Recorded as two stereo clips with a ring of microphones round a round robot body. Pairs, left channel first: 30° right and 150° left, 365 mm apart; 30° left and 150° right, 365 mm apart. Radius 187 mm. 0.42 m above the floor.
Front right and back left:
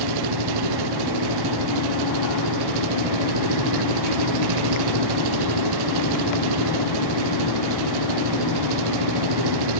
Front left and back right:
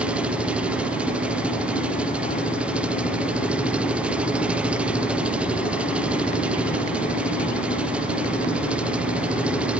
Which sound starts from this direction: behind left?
An engine running, at 0.0 s.